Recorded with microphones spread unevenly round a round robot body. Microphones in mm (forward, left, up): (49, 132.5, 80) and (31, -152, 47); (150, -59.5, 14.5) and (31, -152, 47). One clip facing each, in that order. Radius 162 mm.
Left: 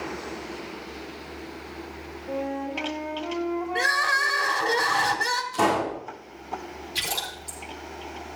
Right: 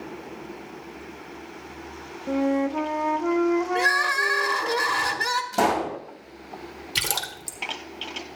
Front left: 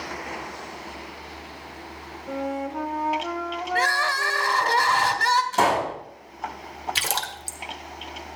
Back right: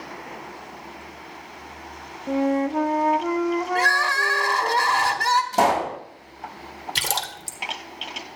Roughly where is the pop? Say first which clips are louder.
Even, back right 4 dB; right.